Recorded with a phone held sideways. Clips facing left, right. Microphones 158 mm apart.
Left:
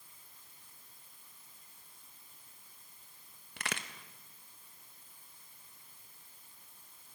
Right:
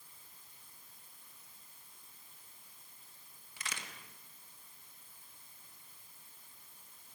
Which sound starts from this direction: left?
A crack, at 3.6 s.